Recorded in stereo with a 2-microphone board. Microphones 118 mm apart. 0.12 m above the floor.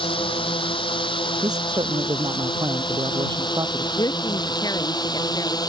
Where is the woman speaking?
35° left (ahead or behind).